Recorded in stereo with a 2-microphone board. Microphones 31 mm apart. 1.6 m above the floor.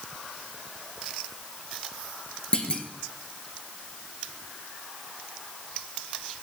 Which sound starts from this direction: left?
A clunk, at 2.5 s.